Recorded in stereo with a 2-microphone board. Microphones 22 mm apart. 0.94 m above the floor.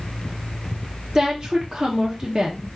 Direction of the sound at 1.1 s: 20° right (ahead or behind).